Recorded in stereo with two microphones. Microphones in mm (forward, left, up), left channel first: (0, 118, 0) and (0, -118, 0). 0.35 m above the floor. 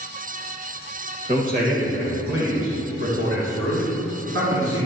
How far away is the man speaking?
About 1.5 m.